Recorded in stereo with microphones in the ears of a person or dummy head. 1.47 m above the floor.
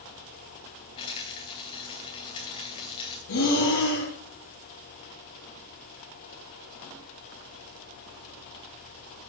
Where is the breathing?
70° left (ahead or behind), 5.5 m.